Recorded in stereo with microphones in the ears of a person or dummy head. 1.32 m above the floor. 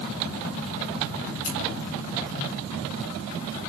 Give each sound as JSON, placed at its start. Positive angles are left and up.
{"t": 1.4, "sound": "scissors", "side_deg": 70, "distance_m": 4.5}